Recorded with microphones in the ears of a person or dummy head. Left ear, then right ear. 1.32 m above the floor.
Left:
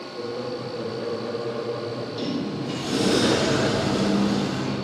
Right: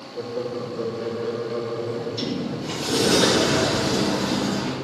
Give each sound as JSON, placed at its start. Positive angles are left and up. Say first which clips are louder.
{"t": 0.1, "sound": "laughter", "louder": "right 3 dB", "side_deg": -10, "distance_m": 3.5}
{"t": 1.9, "sound": "a sliding door", "louder": "right 2 dB", "side_deg": -10, "distance_m": 3.5}